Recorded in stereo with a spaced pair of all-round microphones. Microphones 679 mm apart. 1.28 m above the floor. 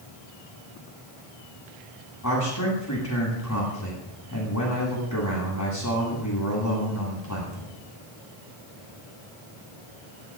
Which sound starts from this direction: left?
A man speaking, at 2.2 s.